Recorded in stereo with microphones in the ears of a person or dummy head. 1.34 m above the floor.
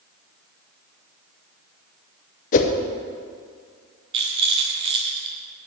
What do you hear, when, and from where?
2.5 s a whoosh: 45° left (ahead or behind), 0.8 m
4.1 s a rattle: 30° right (ahead or behind), 1.0 m